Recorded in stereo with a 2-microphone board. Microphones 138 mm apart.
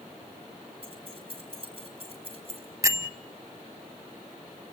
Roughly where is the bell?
Right.